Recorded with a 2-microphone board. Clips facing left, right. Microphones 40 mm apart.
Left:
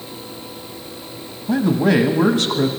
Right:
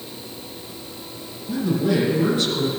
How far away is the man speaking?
About 1.1 m.